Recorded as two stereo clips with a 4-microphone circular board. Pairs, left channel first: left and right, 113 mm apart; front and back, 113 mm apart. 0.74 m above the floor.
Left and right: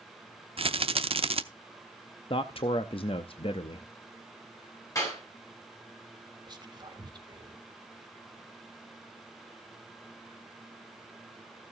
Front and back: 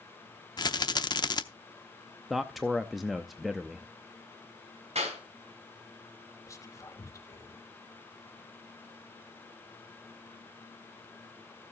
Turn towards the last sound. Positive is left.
turn(degrees=-55)